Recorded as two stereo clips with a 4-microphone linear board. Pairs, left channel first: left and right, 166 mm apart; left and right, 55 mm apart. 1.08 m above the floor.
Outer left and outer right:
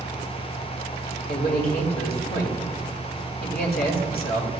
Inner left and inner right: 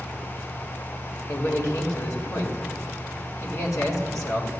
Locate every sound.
1.3 s a man speaking: 70° left (ahead or behind), 1.9 m